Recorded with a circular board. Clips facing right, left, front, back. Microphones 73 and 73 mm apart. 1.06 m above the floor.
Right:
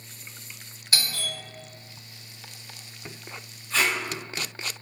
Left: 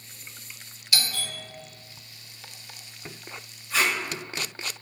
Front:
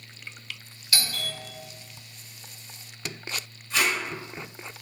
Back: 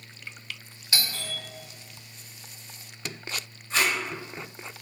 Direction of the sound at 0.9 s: 125° right.